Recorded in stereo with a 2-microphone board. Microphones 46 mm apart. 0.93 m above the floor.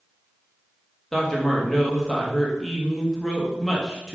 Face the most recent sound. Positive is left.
turn(degrees=10)  # may be behind; listen again after turning